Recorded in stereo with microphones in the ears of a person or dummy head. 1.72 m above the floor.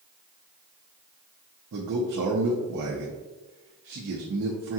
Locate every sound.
1.7 s a man speaking: 55° right (ahead or behind), 0.6 m